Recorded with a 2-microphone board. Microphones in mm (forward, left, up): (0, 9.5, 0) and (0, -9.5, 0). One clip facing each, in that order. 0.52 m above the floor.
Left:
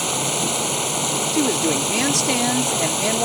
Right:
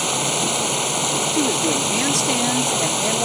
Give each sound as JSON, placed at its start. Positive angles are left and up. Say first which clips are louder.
{"t": 0.0, "sound": "running water", "louder": "right 1 dB", "side_deg": -10}
{"t": 1.3, "sound": "a woman speaking", "louder": "left 2 dB", "side_deg": 10}